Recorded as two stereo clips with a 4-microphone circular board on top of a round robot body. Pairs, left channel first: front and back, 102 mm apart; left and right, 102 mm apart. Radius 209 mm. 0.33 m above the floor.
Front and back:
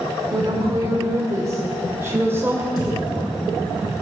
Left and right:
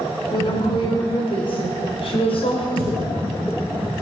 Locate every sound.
0.3 s a woman speaking: 135° left, 3 m; by 2.7 s 110° left, 2 m
2.8 s a thud: 50° left, 5 m